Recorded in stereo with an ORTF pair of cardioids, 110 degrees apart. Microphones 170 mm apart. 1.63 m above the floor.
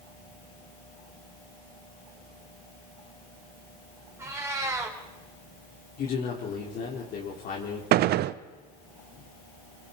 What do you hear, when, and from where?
4.2 s a cat meowing: 15° right, 4.5 m
6.0 s a man speaking: 60° left, 3.5 m
7.9 s a gunshot: 70° right, 0.7 m